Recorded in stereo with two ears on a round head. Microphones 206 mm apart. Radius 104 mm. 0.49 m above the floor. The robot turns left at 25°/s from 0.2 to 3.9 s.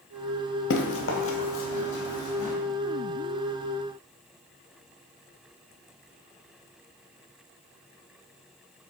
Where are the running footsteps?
55° left (ahead or behind), 0.7 m; by 2.5 s 70° left (ahead or behind), 1.6 m.